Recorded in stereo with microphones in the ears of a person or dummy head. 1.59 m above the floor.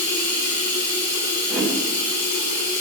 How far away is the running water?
About 2.5 m.